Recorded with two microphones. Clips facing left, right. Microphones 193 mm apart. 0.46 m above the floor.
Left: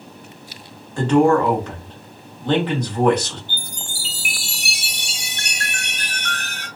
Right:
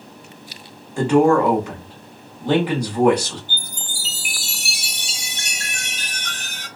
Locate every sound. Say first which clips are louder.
1.0 s a man speaking: even; 10° right (ahead or behind), 1.0 m
3.5 s a chime: left 1 dB; 60° left (ahead or behind), 1.0 m